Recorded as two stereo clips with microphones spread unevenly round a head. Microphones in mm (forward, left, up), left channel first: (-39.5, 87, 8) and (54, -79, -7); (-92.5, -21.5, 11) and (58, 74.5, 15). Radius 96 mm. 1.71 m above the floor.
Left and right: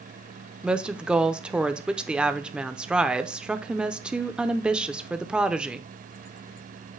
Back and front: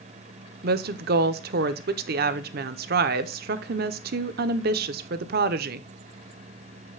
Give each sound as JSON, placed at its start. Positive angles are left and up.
{"t": 0.6, "sound": "a woman speaking", "azimuth_deg": 25, "distance_m": 0.7}